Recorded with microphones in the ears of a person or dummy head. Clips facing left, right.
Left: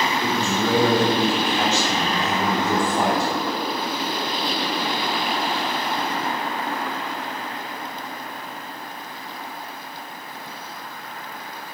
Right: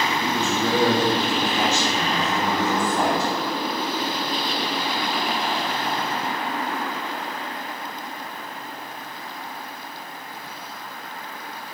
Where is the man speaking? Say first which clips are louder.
Left 1 dB; 70° right (ahead or behind), 1.2 m.